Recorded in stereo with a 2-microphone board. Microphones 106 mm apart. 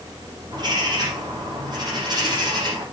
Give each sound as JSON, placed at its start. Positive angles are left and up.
{"t": 0.5, "sound": "a bird", "side_deg": -45, "distance_m": 5.5}